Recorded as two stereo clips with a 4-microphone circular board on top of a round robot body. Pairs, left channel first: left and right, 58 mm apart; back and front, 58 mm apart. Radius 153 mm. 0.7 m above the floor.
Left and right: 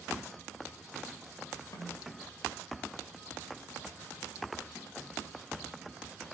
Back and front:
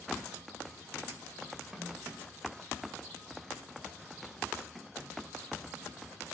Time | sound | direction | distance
1.7 | a snare drum | 80° left | 2 m